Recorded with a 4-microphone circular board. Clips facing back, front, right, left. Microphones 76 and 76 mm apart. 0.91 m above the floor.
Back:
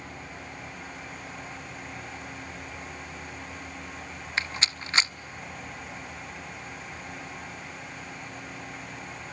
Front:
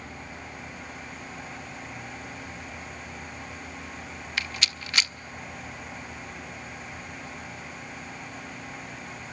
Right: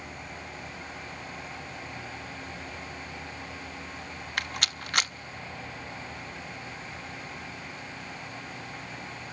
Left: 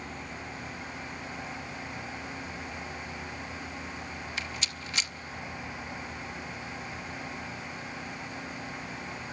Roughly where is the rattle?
Behind right.